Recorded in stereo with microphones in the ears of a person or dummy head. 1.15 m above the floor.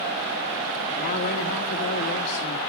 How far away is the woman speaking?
About 1.7 m.